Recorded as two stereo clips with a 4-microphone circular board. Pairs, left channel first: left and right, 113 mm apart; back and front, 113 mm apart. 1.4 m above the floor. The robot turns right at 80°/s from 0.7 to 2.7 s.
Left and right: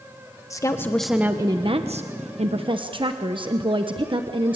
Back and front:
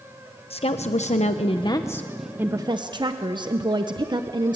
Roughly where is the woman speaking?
Behind left.